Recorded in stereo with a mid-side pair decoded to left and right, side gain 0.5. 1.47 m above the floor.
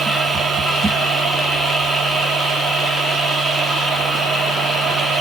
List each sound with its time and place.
0.0 s a machine running: 30° right, 2.5 m